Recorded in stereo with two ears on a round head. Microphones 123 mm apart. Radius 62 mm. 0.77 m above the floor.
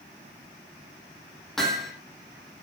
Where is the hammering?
5° left (ahead or behind), 7 m.